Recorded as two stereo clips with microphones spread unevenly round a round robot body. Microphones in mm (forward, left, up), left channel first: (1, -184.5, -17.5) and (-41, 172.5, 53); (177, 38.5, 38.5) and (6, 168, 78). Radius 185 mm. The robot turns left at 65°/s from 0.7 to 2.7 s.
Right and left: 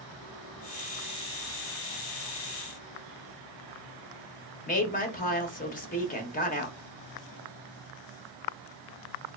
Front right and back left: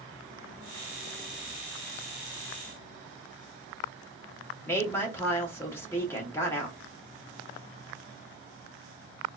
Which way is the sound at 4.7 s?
90° right.